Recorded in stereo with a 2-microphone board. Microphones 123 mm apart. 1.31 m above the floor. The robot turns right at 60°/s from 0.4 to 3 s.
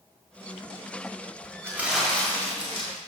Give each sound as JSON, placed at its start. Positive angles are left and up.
{"t": 1.6, "sound": "crumpling", "azimuth_deg": -20, "distance_m": 4.5}